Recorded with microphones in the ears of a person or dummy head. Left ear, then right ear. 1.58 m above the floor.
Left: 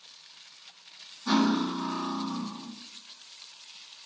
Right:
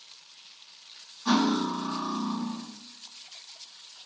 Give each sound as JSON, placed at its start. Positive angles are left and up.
{"t": 1.2, "sound": "cutlery clinking", "side_deg": -50, "distance_m": 1.5}